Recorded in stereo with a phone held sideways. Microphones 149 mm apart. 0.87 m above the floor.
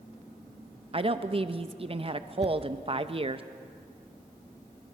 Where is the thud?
20° right (ahead or behind), 1.8 m.